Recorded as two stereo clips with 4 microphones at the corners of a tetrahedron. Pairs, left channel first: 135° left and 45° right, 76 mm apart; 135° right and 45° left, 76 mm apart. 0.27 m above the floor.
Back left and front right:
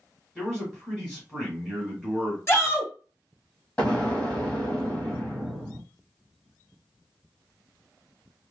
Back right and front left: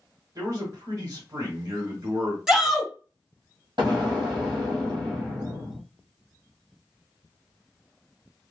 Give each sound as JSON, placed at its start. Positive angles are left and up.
{"t": 0.3, "sound": "a man speaking", "azimuth_deg": 50, "distance_m": 1.4}
{"t": 2.5, "sound": "a shout", "azimuth_deg": 125, "distance_m": 1.7}
{"t": 3.8, "sound": "an explosion", "azimuth_deg": 60, "distance_m": 1.8}